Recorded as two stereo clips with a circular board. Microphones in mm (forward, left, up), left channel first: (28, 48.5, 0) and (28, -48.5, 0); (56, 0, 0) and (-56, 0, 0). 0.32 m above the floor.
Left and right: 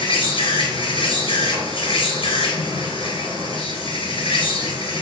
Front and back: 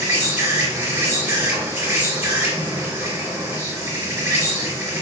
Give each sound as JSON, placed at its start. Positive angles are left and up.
{"t": 0.0, "sound": "an insect", "azimuth_deg": 110, "distance_m": 1.2}